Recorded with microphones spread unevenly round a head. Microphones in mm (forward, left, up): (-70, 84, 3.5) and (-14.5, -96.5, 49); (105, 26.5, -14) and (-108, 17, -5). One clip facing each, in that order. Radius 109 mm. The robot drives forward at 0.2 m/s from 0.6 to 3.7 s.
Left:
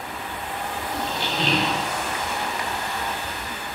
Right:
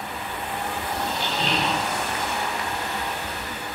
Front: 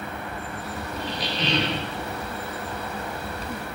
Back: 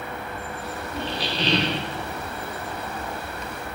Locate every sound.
0.9 s a squeak: 130° left, 0.9 m; by 1.9 s 140° left, 1.0 m